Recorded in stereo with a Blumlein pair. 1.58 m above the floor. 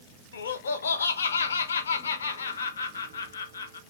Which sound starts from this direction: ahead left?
Laughter, at 0.3 s.